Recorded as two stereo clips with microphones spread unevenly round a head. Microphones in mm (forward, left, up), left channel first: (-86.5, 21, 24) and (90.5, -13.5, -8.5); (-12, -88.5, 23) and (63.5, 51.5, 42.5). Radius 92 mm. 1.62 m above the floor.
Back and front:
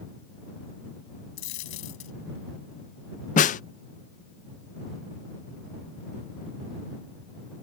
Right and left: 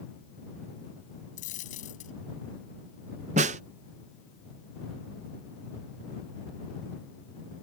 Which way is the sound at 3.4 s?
115° left.